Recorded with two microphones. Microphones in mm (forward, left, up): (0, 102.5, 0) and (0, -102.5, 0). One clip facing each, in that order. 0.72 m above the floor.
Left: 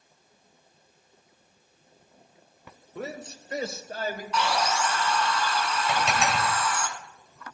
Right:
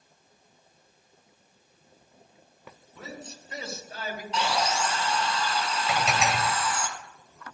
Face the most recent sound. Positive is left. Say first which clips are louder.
# right 1 dB
turn(degrees=-5)  # may be behind; listen again after turning